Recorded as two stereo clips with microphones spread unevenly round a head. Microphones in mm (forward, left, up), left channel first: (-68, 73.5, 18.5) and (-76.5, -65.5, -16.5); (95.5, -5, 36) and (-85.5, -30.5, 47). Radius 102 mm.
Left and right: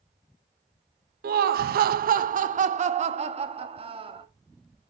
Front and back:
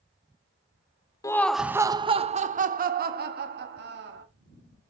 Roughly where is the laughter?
Ahead right.